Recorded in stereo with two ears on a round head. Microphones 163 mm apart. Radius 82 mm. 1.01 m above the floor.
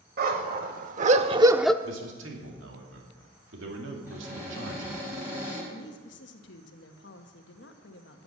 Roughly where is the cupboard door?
Centre.